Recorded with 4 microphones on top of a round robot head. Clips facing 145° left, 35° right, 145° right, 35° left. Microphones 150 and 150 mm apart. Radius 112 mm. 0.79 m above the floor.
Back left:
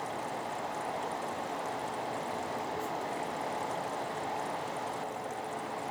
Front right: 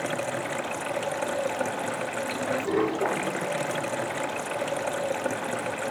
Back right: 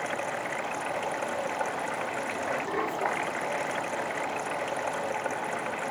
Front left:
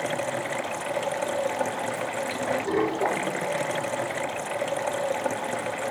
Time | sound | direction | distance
0.0 | running water | 20° right | ?